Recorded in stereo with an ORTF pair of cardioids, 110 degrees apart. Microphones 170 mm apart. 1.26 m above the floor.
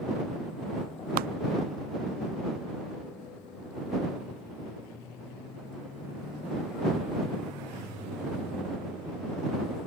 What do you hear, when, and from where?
1.2 s a clap: 65° right